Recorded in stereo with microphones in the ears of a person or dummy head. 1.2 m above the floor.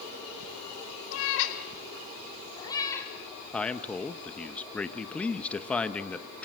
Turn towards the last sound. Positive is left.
turn(degrees=10)  # may be behind; listen again after turning